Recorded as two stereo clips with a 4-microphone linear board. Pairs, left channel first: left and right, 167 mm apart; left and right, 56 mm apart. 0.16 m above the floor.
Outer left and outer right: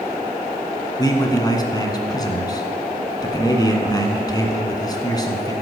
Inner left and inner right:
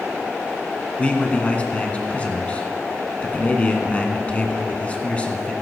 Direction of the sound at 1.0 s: 25° left (ahead or behind).